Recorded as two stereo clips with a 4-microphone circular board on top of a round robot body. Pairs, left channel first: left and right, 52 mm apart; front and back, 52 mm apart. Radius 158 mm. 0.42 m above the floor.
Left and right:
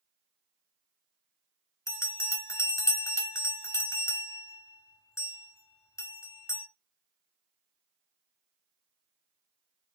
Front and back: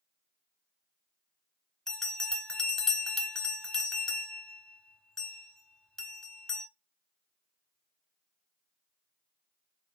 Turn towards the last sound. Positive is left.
turn(degrees=80)